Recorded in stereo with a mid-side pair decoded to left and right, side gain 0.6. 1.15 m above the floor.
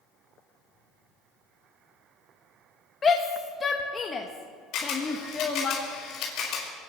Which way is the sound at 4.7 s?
60° left.